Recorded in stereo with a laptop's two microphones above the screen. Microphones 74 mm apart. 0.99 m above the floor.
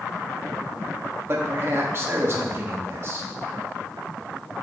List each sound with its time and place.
1.3 s a man speaking: 40° right (ahead or behind), 1.3 m